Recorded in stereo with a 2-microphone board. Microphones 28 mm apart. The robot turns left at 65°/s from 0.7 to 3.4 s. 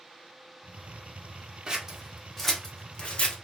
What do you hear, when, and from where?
1.7 s scissors: 30° right (ahead or behind), 0.7 m; by 3.4 s 50° left (ahead or behind), 0.7 m